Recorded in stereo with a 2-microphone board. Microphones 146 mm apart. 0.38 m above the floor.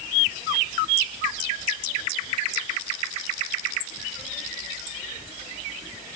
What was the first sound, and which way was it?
Only background noise.